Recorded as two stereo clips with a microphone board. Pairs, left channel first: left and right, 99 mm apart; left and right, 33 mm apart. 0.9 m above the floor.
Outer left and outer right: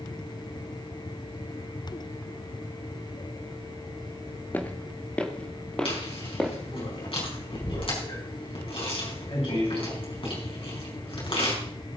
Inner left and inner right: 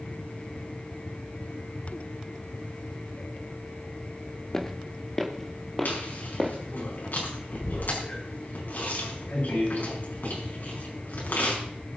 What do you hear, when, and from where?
4.5 s footsteps: 15° left (ahead or behind), 1.0 m; by 6.5 s 5° left (ahead or behind), 2 m
5.8 s chewing: 65° left (ahead or behind), 4.5 m